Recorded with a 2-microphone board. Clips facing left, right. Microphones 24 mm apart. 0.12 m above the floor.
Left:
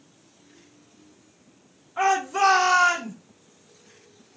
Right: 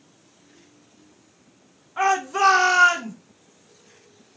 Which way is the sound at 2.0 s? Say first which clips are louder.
Right 1 dB; 15° right (ahead or behind).